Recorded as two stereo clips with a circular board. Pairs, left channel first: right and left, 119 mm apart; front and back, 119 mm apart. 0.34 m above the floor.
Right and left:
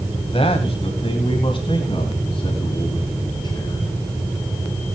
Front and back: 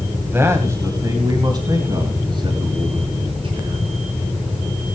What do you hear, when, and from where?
0.2 s a man speaking: 110° right, 2 m; by 3.9 s 145° right, 4 m